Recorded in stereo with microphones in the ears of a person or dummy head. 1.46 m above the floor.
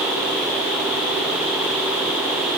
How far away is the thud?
No thud in this recording.